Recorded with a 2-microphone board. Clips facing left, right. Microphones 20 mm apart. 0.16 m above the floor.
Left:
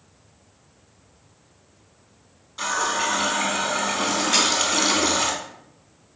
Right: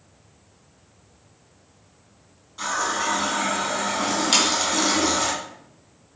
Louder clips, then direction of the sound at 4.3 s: Right 1 dB; 75° right (ahead or behind).